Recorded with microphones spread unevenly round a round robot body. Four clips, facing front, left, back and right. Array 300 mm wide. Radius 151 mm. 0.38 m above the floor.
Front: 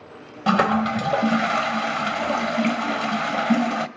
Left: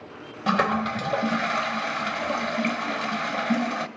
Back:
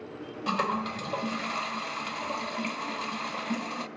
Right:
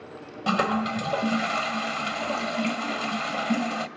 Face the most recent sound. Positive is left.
turn(degrees=5)